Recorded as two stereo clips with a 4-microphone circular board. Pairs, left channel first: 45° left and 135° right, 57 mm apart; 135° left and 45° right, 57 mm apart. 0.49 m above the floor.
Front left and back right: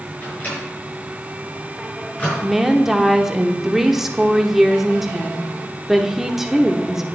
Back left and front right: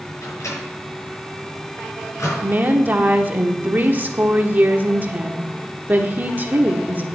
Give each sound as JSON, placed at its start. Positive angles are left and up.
{"t": 0.2, "sound": "a microwave", "azimuth_deg": 105, "distance_m": 6.0}
{"t": 2.4, "sound": "a woman speaking", "azimuth_deg": -60, "distance_m": 1.1}